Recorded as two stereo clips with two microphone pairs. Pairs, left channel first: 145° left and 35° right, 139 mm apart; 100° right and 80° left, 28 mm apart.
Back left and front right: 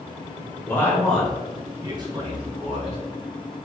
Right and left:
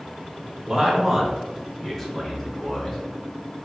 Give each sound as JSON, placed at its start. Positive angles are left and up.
{"t": 0.7, "sound": "a man speaking", "azimuth_deg": 100, "distance_m": 1.1}